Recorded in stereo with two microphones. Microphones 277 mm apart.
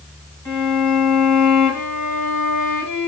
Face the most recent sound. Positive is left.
turn(degrees=5)  # may be behind; listen again after turning